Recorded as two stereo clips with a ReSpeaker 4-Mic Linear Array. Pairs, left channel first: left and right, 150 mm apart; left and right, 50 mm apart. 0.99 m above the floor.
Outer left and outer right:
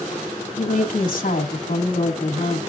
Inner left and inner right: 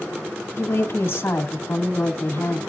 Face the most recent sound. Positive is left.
turn(degrees=70)  # may be behind; listen again after turning